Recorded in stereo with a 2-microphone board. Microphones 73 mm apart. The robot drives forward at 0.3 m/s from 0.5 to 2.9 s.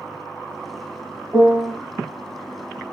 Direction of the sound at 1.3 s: 25° right (ahead or behind).